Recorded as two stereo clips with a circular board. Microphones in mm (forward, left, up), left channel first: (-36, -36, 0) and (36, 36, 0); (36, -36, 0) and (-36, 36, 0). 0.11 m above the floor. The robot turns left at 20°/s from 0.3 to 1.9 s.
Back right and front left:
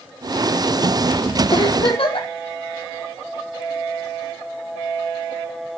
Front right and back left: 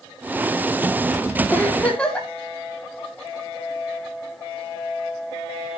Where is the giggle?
115° right, 4 m; by 2.3 s 125° right, 4 m.